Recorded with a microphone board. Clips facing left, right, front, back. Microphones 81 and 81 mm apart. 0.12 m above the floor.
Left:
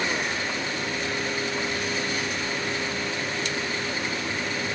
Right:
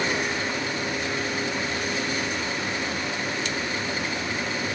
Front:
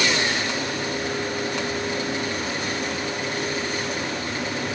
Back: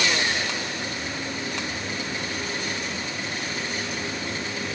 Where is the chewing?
I don't hear chewing.